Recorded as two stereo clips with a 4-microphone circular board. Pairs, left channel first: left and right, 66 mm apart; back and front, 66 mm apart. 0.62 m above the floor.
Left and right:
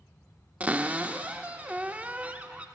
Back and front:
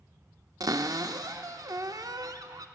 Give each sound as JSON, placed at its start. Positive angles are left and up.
{"t": 0.6, "sound": "a cupboard door", "azimuth_deg": -20, "distance_m": 0.5}